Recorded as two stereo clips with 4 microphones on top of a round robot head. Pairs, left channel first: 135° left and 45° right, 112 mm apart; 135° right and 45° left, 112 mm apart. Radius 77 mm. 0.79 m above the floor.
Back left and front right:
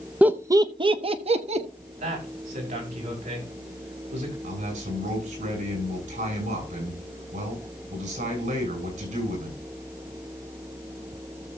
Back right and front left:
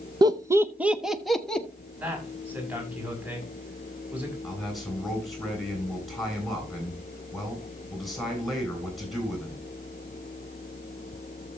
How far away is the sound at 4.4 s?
About 7.5 m.